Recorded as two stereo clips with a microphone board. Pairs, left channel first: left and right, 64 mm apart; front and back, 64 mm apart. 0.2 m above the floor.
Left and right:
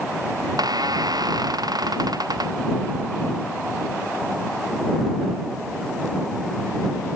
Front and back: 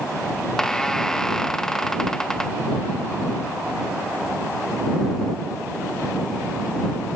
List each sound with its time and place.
0.4 s a squeak: 80° right